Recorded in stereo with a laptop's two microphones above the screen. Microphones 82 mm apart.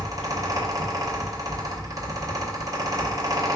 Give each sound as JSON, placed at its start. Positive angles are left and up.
{"t": 0.0, "sound": "a fan", "side_deg": -40, "distance_m": 1.1}